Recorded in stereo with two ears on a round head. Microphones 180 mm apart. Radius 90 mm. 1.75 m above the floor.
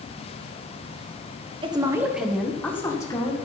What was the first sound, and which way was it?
A woman speaking, 25° right (ahead or behind).